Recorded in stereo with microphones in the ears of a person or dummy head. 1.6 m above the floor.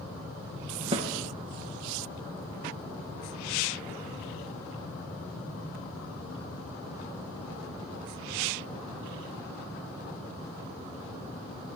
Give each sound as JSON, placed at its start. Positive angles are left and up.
{"t": 0.9, "sound": "a snare drum", "side_deg": -35, "distance_m": 0.9}